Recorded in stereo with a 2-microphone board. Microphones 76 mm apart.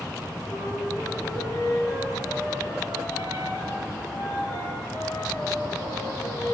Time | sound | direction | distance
0.5 | a flute | 50° left (ahead or behind) | 6.5 m